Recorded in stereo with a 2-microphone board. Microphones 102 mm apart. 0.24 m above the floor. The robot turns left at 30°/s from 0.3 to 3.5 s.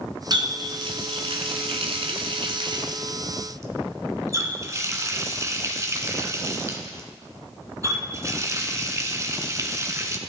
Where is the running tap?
45° right (ahead or behind), 1.8 m; by 10.2 s 30° right (ahead or behind), 1.8 m.